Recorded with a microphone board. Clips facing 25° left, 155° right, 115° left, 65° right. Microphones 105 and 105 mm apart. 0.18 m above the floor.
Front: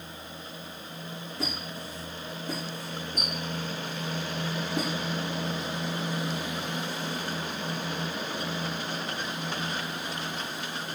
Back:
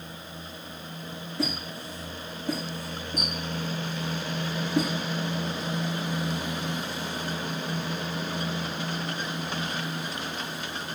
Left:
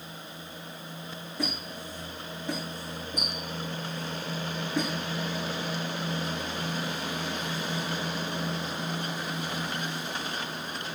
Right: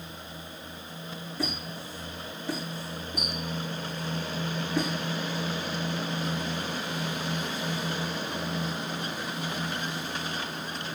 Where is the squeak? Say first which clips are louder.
Back 5 dB, even; 175° right, 7 m.